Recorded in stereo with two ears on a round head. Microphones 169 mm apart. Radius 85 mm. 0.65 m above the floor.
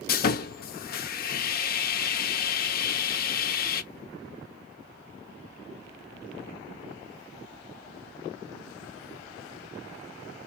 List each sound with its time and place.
0.1 s sawing: 50° left (ahead or behind), 0.5 m